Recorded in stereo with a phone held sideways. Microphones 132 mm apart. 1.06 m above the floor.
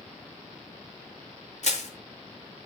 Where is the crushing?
60° left (ahead or behind), 2.5 m.